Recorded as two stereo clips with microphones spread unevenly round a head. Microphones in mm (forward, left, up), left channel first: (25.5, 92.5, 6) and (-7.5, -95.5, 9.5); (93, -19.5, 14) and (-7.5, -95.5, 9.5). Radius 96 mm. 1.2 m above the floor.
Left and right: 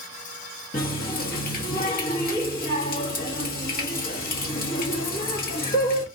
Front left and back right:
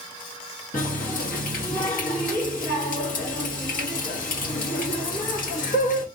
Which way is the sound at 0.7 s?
35° left.